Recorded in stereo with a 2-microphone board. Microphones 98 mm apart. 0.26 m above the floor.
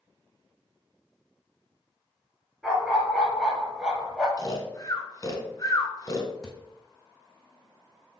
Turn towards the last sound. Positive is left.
turn(degrees=5)  # may be behind; listen again after turning